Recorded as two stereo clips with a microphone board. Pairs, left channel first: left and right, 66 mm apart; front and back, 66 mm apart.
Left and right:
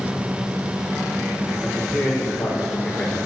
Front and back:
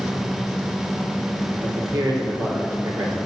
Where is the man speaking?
Straight behind, 4 m; by 3.1 s 170° left, 3 m.